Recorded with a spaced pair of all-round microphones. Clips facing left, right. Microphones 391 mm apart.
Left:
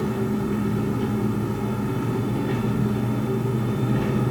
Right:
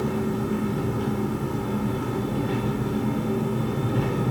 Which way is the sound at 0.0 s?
40° left (ahead or behind).